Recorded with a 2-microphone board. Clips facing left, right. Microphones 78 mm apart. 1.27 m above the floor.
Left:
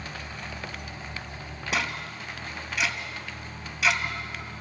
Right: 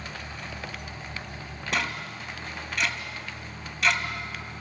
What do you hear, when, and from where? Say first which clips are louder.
1.7 s ticking: even; 5° left (ahead or behind), 2 m